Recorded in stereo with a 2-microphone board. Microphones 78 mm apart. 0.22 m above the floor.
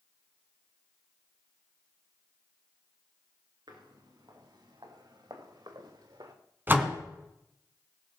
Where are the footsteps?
65° right (ahead or behind), 4 m.